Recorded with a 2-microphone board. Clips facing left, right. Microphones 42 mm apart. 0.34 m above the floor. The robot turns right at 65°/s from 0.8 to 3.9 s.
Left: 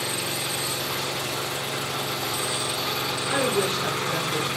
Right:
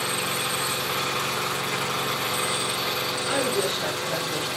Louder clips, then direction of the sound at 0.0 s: Right 2 dB; 140° right.